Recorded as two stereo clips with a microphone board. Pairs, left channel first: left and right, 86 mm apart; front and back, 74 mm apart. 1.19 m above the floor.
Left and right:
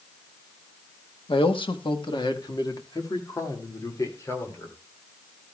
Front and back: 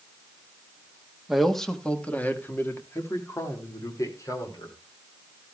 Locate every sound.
1.3 s a man speaking: 95° left, 1.4 m; by 4.8 s 35° left, 3.5 m